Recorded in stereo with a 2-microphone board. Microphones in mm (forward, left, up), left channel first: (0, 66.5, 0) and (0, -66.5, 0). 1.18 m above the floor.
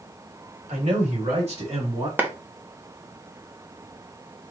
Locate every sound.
0.7 s a man speaking: 65° right (ahead or behind), 3 m; by 2.1 s 40° right (ahead or behind), 2.5 m
2.2 s a clap: 15° right (ahead or behind), 0.9 m